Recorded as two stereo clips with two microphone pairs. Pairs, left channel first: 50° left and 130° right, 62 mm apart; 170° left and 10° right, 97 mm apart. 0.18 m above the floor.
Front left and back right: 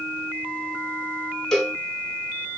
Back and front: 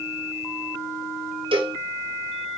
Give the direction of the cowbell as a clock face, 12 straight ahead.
1 o'clock.